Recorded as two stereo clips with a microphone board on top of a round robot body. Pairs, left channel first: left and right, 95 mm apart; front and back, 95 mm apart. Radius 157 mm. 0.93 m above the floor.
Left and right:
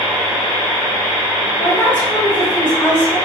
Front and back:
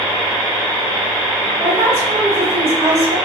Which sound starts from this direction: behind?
A woman speaking, at 1.6 s.